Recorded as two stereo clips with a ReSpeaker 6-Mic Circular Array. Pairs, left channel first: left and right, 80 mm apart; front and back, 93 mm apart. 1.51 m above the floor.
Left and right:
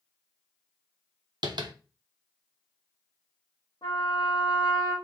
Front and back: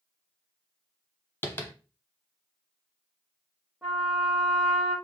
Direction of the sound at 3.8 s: 95° left.